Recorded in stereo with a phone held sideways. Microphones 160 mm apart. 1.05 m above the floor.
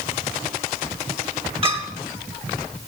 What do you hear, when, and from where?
1.6 s a clink: 35° right (ahead or behind), 1.8 m